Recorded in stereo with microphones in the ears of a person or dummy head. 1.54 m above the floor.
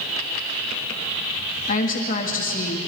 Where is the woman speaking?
45° left (ahead or behind), 2.5 m.